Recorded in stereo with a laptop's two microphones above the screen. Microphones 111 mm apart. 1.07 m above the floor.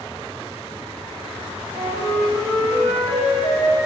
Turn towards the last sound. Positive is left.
turn(degrees=15)  # may be behind; listen again after turning